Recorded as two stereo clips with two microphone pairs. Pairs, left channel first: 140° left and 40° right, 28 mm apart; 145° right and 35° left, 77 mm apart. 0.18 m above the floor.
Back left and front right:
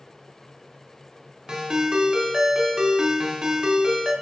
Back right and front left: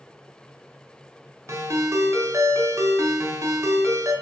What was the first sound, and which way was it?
A ringtone, 5° left.